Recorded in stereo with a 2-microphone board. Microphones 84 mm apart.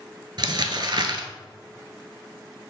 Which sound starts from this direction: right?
Crumpling, at 0.4 s.